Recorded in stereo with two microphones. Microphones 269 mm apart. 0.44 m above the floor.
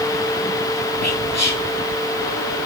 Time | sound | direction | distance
1.0 | whispering | 70° left (ahead or behind) | 8.5 m